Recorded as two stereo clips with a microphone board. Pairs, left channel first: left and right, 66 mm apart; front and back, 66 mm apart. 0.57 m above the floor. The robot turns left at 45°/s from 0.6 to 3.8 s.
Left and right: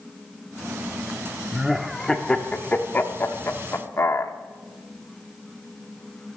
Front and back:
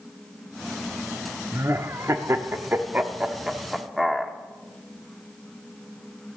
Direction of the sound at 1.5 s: 165° right.